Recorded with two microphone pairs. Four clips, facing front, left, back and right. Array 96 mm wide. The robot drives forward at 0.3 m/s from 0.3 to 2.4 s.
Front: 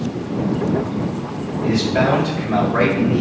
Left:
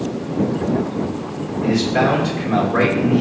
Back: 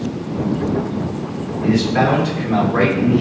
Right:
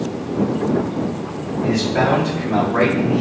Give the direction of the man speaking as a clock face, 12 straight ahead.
9 o'clock.